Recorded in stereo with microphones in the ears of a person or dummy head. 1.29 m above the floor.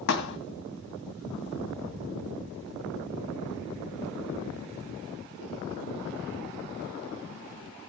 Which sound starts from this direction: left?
A thud, at 0.1 s.